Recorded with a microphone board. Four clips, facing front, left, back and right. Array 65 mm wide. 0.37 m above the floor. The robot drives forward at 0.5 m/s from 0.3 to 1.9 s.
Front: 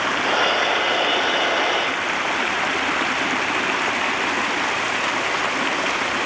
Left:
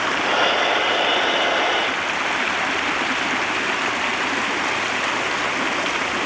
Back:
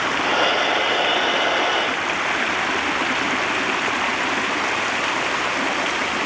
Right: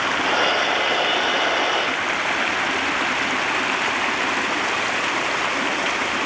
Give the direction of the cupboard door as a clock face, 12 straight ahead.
No cupboard door in this recording.